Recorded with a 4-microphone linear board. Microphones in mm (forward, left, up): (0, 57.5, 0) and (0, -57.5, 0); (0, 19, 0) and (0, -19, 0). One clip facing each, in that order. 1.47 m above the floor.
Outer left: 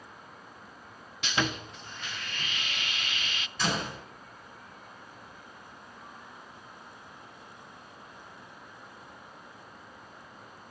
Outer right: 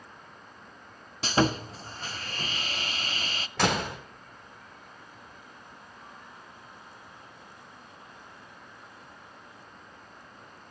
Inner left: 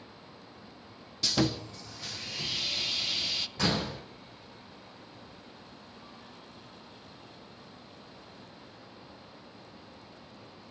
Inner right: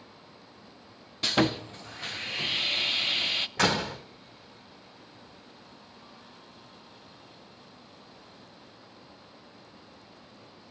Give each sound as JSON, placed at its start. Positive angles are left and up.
{"t": 1.2, "sound": "sawing", "side_deg": -35, "distance_m": 0.6}
{"t": 3.6, "sound": "a door slam", "side_deg": -80, "distance_m": 3.5}